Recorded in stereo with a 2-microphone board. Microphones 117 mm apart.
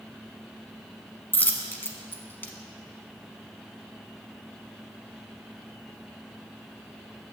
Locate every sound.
1.3 s a dropped coin: 15° left (ahead or behind), 0.9 m